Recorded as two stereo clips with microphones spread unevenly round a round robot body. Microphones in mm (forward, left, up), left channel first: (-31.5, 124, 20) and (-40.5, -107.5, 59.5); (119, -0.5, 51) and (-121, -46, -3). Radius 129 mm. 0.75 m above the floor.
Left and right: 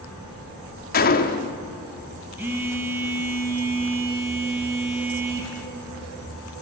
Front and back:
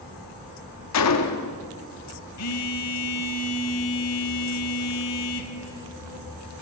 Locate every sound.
0.9 s a gunshot: 40° left, 1.1 m
2.4 s a phone buzzing: 10° right, 1.9 m